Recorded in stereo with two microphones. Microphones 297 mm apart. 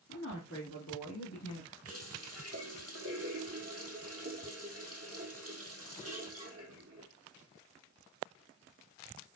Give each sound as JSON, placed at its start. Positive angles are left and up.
{"t": 0.1, "sound": "a woman speaking", "side_deg": 40, "distance_m": 2.0}
{"t": 1.9, "sound": "a running tap", "side_deg": -50, "distance_m": 2.5}